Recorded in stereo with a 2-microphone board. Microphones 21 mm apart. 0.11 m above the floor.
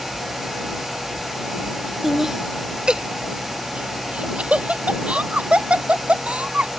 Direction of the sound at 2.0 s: 10° right (ahead or behind).